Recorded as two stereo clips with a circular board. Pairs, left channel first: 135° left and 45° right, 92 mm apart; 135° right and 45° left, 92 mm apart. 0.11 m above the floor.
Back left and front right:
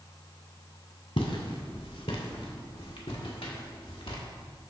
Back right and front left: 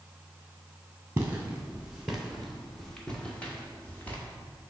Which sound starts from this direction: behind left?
Footsteps, at 1.2 s.